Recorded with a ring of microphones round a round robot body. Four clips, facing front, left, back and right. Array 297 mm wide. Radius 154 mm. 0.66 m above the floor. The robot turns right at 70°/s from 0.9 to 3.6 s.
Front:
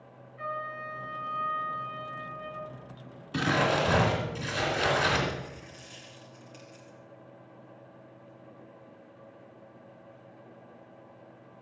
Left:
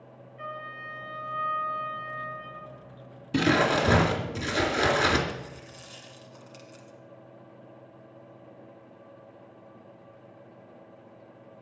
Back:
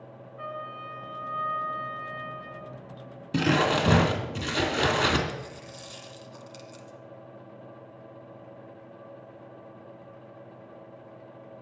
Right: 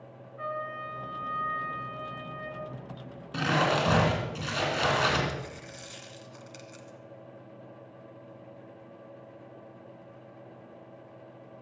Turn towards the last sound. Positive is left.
turn(degrees=-155)